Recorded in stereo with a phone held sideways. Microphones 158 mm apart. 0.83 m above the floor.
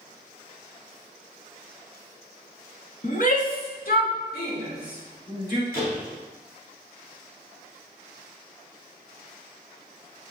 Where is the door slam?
70° left (ahead or behind), 4.5 m.